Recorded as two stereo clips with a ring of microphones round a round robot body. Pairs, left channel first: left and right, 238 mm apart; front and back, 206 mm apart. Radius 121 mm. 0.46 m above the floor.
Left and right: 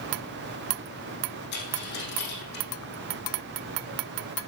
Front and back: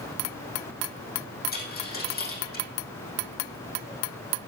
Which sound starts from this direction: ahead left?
A dropped coin, at 1.5 s.